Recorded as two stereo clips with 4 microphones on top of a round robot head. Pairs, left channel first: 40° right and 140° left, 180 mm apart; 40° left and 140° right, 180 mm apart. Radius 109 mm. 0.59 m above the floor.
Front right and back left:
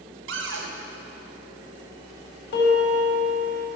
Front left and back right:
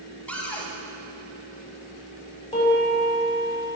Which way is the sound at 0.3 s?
125° left.